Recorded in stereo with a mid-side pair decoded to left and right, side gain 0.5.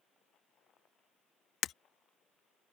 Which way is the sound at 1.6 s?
60° left.